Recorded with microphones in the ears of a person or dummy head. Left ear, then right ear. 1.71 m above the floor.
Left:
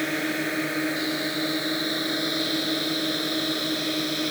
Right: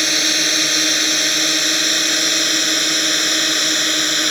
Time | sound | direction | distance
0.0 | a drone | 80° right | ?